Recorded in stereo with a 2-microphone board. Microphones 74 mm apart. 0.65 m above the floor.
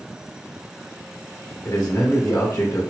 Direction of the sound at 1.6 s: 50° left (ahead or behind).